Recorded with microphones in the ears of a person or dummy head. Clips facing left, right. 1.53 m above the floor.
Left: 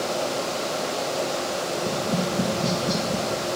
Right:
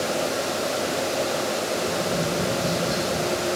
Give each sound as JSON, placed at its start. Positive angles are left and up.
{"t": 1.8, "sound": "tapping", "side_deg": 50, "distance_m": 2.0}